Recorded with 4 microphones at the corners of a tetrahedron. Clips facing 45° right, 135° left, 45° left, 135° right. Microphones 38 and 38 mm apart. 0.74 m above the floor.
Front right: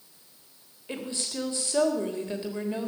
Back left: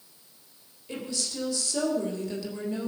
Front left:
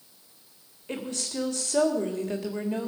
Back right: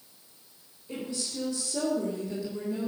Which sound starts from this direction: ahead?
A woman speaking, at 0.9 s.